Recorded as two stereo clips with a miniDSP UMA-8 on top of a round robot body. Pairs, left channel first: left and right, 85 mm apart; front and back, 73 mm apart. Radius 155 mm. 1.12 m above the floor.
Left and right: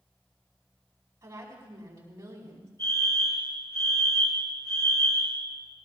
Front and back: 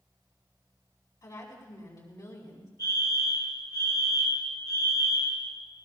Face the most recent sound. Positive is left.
turn(degrees=30)